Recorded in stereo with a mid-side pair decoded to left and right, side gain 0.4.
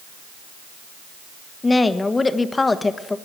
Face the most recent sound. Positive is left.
turn(degrees=30)